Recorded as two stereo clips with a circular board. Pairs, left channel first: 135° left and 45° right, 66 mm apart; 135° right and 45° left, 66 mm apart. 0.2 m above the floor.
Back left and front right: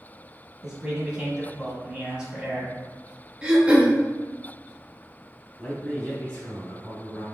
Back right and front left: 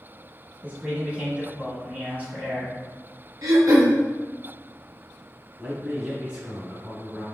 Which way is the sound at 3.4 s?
25° left.